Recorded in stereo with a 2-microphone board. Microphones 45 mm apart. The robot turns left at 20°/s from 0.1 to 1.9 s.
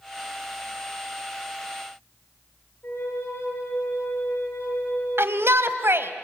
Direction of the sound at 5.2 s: 60° right (ahead or behind).